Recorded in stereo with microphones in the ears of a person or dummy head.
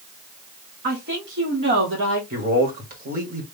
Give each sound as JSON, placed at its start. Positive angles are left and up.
{"t": 0.8, "sound": "a woman speaking", "side_deg": -50, "distance_m": 1.2}
{"t": 2.3, "sound": "a man speaking", "side_deg": -40, "distance_m": 1.5}